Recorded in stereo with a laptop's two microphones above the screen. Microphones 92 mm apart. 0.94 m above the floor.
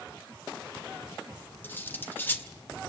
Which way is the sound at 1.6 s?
20° left (ahead or behind).